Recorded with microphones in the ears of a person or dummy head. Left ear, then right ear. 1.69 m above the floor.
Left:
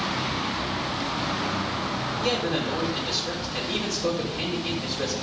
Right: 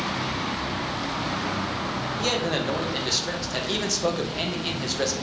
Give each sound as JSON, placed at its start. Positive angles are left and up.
{"t": 2.2, "sound": "a man speaking", "side_deg": -70, "distance_m": 1.9}